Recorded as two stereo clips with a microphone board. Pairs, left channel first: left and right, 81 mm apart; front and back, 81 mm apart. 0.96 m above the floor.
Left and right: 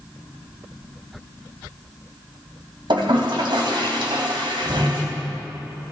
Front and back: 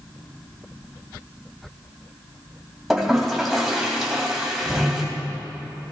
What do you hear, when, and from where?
2.9 s a toilet flushing: 90° right, 2.5 m